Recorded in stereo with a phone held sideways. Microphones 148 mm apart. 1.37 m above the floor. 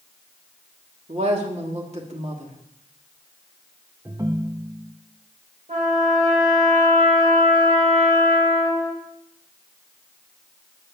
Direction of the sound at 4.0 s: 20° right (ahead or behind).